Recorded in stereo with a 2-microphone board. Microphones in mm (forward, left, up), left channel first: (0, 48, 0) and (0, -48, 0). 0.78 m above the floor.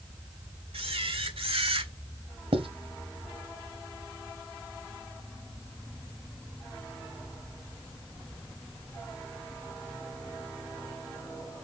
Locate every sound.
0.7 s a camera shutter: 85° right, 1.7 m
2.5 s writing: 80° right, 1.6 m